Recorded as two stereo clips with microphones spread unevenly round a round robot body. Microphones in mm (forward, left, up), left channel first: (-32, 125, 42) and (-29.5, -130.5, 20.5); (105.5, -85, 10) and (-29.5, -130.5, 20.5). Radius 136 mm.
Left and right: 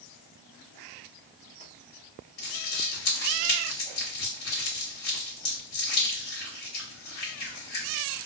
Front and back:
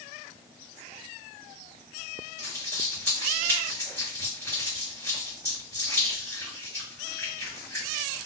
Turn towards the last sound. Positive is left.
turn(degrees=95)